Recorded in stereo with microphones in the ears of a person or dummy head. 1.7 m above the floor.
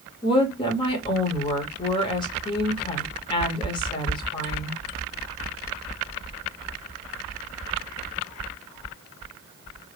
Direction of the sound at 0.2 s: 25° left (ahead or behind).